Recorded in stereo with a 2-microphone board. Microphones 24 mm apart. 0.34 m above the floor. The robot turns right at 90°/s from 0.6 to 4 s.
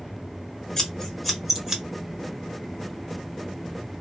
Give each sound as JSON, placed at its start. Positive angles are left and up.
{"t": 0.8, "sound": "scissors", "side_deg": 20, "distance_m": 1.2}